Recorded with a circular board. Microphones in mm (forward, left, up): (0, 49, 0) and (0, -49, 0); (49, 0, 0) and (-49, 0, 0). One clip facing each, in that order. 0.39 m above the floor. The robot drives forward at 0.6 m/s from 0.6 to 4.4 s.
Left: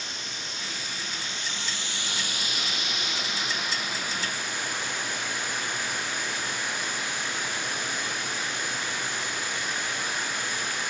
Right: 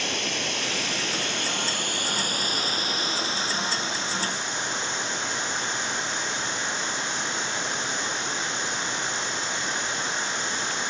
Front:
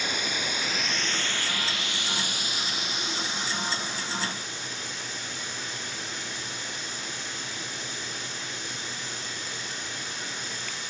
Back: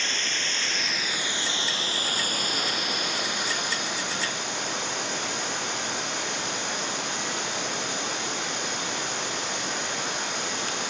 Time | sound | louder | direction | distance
0.0 | running water | right 9 dB, front 1 dB | 80° right | 0.9 m